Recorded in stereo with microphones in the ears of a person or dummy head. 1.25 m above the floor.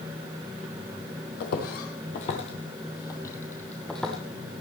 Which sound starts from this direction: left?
Footsteps, at 1.4 s.